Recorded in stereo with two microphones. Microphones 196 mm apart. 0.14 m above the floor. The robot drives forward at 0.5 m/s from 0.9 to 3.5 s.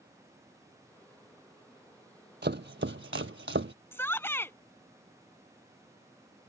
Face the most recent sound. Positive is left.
turn(degrees=10)  # may be behind; listen again after turning